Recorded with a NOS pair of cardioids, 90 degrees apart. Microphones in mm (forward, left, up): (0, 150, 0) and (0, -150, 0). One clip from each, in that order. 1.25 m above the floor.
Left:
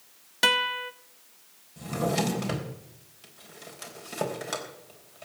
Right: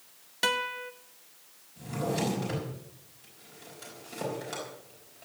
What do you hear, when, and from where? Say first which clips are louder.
0.4 s a guitar: left 6 dB; 20° left, 0.7 m
1.8 s a drawer: left 4 dB; 60° left, 4 m